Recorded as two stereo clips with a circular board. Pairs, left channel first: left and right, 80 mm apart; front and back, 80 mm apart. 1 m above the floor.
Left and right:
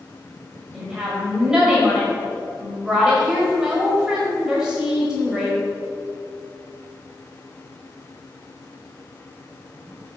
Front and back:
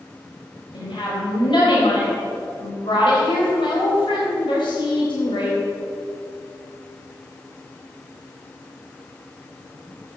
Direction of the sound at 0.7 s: 10° right.